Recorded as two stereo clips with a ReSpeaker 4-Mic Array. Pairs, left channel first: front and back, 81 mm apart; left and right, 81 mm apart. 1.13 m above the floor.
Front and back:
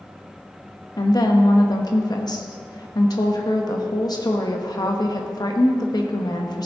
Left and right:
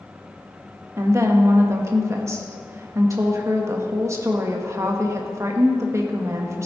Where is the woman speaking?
35° right, 1.4 m.